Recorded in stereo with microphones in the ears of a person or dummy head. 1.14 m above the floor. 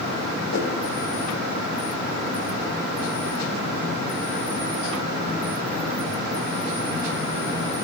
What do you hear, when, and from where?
0.5 s a whoosh: 70° left (ahead or behind), 3.5 m